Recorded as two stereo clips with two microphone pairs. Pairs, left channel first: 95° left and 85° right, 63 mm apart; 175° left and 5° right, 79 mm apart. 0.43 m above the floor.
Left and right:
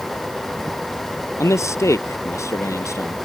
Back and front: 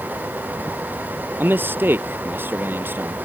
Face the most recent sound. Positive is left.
turn(degrees=55)